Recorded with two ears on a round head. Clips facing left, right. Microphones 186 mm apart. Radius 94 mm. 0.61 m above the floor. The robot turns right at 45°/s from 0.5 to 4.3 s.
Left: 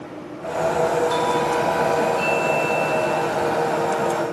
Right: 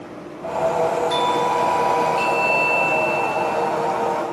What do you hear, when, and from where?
1.1 s a doorbell: 150° right, 3.5 m; by 3.9 s 25° right, 3.5 m